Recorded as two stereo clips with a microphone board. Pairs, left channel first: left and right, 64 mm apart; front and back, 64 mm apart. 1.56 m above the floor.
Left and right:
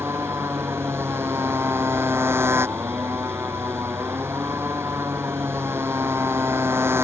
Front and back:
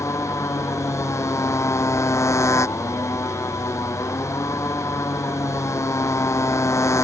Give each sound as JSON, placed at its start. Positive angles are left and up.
{"t": 0.0, "sound": "a motorcycle", "azimuth_deg": -40}